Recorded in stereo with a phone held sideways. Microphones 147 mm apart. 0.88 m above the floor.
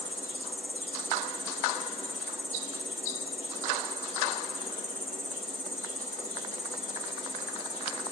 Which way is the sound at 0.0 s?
20° left (ahead or behind).